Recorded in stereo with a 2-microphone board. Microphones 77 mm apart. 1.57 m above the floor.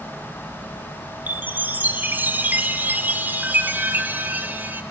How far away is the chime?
About 0.7 m.